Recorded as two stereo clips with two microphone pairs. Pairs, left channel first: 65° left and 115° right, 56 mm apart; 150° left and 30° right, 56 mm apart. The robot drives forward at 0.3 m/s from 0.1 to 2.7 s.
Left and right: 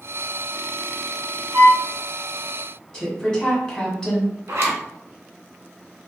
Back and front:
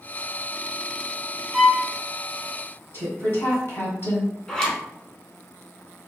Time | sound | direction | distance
1.5 | a violin | 100° right | 0.5 m
2.9 | a woman speaking | 140° left | 1.4 m
4.5 | a zipper | 130° right | 0.8 m